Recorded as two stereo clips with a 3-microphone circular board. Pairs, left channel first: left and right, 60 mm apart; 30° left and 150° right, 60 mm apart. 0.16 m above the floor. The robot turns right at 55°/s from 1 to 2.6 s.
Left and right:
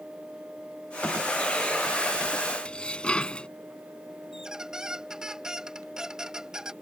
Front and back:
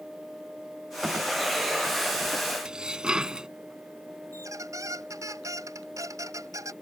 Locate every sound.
2.6 s dishes clattering: 145° left
4.3 s a squeak: 170° right